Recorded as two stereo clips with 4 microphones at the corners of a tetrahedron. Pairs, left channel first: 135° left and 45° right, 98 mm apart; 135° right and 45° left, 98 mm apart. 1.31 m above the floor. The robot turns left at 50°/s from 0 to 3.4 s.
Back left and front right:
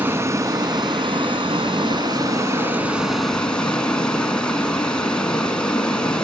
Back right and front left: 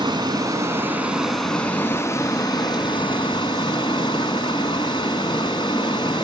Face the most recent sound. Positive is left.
turn(degrees=-145)